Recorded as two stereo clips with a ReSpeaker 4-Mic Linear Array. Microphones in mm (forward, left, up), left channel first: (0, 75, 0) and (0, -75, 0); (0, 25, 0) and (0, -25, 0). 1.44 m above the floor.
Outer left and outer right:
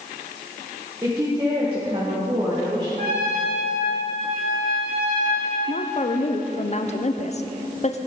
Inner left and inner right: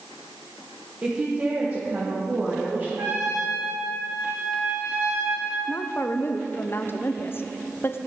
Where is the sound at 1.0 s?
25° right (ahead or behind), 1.4 m; by 2.9 s 45° right (ahead or behind), 2.5 m.